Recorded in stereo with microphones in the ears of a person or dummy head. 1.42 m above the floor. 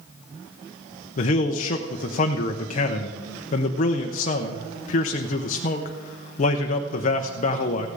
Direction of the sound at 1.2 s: 40° left (ahead or behind).